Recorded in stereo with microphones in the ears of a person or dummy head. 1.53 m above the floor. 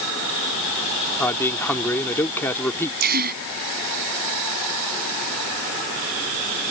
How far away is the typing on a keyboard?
I don't hear typing on a keyboard.